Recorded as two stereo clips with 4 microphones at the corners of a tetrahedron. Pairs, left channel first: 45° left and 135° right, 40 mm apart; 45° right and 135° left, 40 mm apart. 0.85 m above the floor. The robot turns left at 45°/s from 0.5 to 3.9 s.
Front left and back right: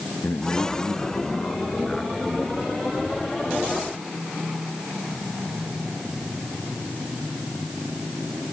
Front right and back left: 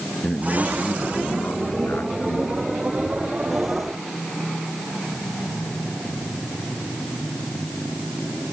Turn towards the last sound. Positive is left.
turn(degrees=-120)